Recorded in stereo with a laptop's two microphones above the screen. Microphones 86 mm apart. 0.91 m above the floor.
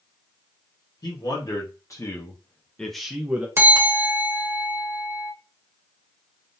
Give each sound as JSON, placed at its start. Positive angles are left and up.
{"t": 1.0, "sound": "a man speaking", "side_deg": 50, "distance_m": 1.4}
{"t": 3.6, "sound": "a bell", "side_deg": -30, "distance_m": 0.9}